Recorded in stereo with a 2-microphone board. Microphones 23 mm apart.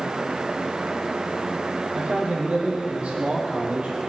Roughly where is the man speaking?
Right.